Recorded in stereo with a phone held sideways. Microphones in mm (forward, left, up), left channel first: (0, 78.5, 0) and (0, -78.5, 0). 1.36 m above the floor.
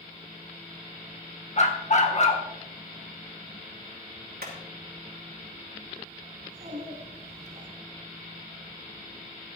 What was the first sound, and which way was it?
A dog barking, 50° left (ahead or behind).